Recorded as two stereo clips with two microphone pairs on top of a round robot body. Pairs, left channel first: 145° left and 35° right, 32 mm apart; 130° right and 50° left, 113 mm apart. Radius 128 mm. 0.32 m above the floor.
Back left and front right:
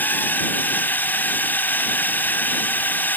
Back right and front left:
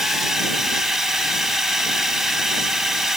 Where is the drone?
135° left.